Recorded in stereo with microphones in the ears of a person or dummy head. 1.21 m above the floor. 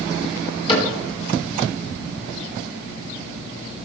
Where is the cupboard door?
30° left (ahead or behind), 4.5 m.